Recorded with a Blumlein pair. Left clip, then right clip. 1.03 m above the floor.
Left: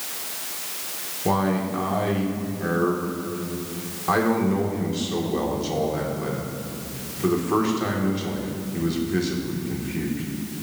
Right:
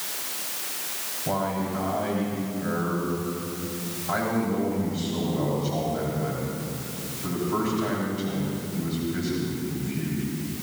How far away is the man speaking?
About 2.5 m.